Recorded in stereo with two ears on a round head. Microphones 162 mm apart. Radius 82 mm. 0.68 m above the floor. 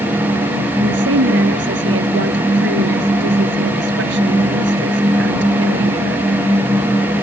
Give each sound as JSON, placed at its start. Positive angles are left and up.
{"t": 0.8, "sound": "a woman speaking", "side_deg": -75}